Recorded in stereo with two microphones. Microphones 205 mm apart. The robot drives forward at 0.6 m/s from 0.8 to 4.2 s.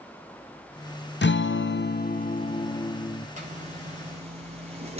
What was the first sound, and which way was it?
A guitar, 60° left (ahead or behind).